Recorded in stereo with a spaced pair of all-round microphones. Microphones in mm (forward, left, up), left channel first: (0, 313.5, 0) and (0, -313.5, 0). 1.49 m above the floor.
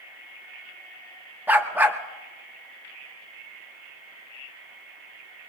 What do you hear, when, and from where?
1.5 s a dog barking: 5° right (ahead or behind), 1.0 m